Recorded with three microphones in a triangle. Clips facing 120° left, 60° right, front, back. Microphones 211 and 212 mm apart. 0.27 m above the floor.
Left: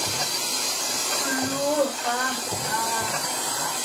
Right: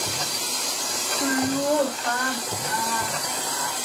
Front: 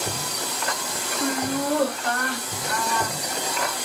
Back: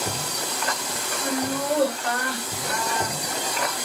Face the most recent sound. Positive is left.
turn(degrees=135)